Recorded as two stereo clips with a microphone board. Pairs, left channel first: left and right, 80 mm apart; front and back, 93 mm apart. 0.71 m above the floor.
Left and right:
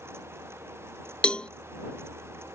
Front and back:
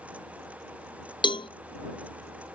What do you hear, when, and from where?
1.2 s a cowbell: 15° left